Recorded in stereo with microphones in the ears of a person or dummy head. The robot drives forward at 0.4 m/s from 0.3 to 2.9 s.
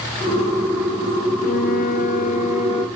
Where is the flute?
45° left (ahead or behind), 0.5 m; by 2.9 s 30° left (ahead or behind), 0.7 m.